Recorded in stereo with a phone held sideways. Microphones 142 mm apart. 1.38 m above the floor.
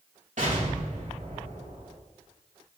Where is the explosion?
60° right (ahead or behind), 3.5 m.